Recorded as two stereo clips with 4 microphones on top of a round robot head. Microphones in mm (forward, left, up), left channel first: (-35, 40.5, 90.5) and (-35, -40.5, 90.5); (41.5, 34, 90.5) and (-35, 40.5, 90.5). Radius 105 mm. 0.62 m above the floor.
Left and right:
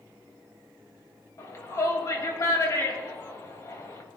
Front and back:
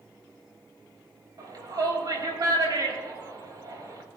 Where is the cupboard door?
No cupboard door in this recording.